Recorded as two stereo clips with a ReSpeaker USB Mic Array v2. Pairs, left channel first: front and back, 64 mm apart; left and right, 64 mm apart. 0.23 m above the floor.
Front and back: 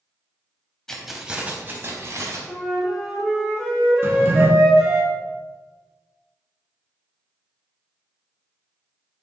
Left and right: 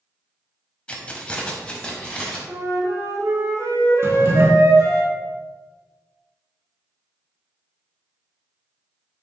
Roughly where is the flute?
Right.